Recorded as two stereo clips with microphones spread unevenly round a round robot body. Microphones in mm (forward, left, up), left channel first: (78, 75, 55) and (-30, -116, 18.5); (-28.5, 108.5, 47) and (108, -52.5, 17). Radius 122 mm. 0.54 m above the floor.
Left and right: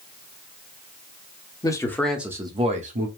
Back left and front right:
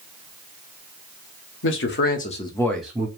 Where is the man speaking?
135° left, 1.4 m; by 3.1 s 115° right, 1.3 m.